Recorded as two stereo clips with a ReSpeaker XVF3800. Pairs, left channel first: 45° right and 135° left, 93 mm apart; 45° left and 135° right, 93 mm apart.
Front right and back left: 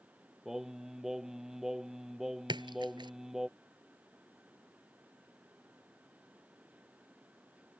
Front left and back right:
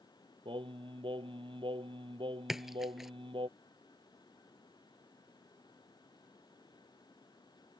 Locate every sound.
0.5 s singing: 140° right
2.5 s a splash: 140° left